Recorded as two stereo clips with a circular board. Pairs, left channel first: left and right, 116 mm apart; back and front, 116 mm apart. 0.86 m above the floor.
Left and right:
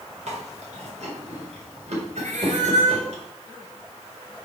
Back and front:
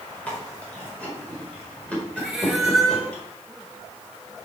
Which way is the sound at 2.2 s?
85° right.